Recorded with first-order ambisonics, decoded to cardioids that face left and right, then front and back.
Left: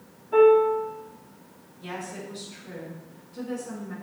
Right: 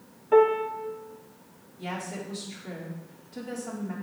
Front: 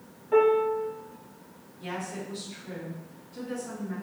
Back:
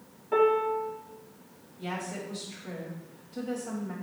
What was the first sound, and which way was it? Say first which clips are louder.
A piano: left 4 dB, front 2 dB; 100° right.